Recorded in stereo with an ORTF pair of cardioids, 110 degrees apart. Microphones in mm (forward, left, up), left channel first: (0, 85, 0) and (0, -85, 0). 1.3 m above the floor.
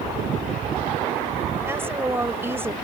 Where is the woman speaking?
15° right.